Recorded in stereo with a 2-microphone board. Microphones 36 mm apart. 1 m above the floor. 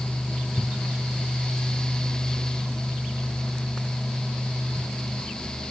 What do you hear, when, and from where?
Only background noise.